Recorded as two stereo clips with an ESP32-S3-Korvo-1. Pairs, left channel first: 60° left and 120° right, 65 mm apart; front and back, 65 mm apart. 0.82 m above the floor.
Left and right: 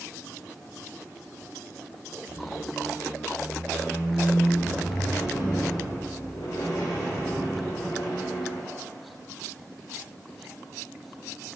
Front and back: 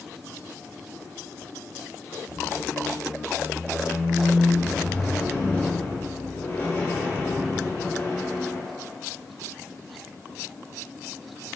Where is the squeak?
50° left, 1.9 m.